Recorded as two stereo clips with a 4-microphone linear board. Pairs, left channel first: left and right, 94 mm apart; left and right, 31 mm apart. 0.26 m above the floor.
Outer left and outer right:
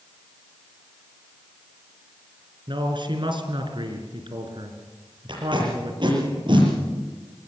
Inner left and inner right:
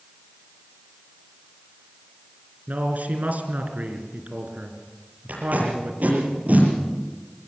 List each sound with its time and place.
2.7 s a man speaking: 55° right (ahead or behind), 3.5 m
5.3 s tape being pulled: 55° right (ahead or behind), 8 m